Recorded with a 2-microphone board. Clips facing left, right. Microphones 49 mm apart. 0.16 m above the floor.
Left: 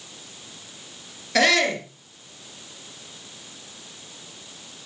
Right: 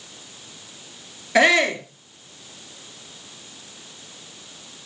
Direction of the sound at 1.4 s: 20° right (ahead or behind).